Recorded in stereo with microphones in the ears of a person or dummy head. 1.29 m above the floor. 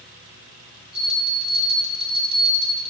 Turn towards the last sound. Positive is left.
turn(degrees=-25)  # may be behind; listen again after turning